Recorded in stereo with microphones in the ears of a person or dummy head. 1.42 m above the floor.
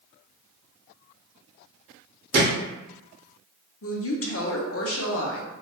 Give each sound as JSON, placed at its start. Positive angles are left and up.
{"t": 2.3, "sound": "a thud", "side_deg": -55, "distance_m": 1.6}
{"t": 3.8, "sound": "a woman speaking", "side_deg": 65, "distance_m": 0.7}